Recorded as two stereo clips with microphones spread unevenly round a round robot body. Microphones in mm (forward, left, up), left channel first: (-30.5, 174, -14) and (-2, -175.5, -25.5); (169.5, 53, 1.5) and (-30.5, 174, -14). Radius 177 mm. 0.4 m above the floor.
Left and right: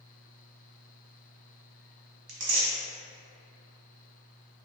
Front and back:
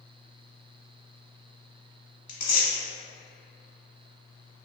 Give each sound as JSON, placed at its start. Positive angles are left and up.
{"t": 2.3, "sound": "tearing paper", "azimuth_deg": -55, "distance_m": 0.9}